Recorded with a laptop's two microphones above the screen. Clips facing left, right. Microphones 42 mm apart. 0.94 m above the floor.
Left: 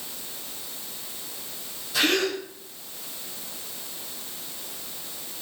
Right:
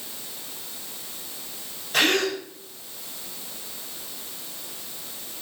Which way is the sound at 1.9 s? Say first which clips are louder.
Right 2 dB; 60° right (ahead or behind).